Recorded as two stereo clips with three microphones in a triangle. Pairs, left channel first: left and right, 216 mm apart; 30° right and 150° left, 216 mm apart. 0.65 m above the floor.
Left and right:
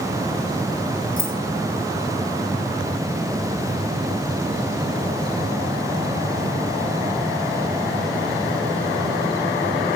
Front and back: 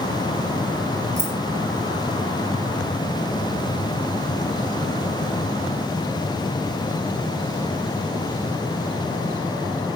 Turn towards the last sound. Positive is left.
turn(degrees=115)